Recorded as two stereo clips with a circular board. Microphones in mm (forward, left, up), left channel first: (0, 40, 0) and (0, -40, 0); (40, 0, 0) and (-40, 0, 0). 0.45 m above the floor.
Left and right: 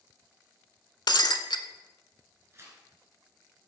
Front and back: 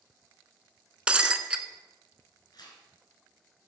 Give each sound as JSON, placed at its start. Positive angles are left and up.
{"t": 1.1, "sound": "breaking glass", "azimuth_deg": 105, "distance_m": 0.6}
{"t": 2.5, "sound": "tearing paper", "azimuth_deg": -35, "distance_m": 2.5}